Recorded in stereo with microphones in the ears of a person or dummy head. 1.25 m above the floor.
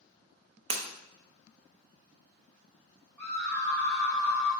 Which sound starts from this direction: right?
Breaking glass, at 0.7 s.